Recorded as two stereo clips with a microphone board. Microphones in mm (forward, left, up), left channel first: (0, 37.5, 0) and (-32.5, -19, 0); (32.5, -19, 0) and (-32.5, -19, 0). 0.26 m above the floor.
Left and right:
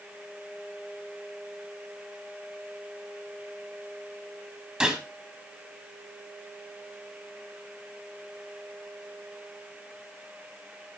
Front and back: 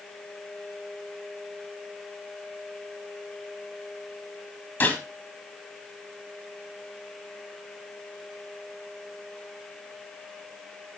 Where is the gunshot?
45° right, 1.8 m.